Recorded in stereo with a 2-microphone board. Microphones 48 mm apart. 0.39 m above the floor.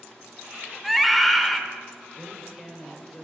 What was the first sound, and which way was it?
A scream, centre (ahead or behind).